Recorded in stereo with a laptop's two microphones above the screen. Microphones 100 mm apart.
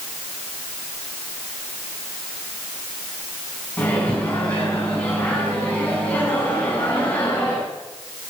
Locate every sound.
3.8 s a microwave: 15° left (ahead or behind), 6 m